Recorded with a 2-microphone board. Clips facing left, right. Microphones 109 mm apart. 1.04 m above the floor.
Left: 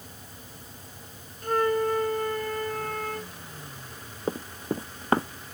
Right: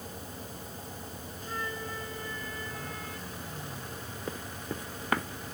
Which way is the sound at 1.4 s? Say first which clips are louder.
Left 15 dB; 65° left (ahead or behind).